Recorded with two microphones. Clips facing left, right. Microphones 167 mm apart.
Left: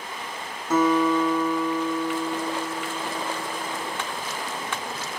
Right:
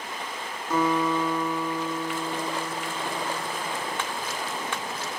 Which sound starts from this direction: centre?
A guitar, at 0.7 s.